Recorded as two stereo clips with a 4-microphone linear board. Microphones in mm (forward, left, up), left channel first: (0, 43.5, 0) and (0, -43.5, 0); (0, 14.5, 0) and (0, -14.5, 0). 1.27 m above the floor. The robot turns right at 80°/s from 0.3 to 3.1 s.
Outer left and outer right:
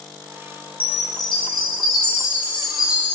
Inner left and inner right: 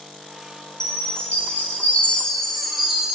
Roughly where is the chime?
Ahead.